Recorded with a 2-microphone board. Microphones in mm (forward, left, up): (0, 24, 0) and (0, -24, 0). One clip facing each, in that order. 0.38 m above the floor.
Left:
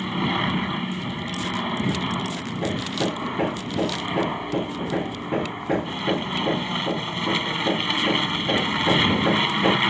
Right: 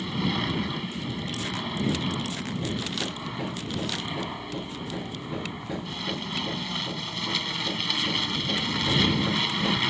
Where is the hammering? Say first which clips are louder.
Left 9 dB; 40° left (ahead or behind).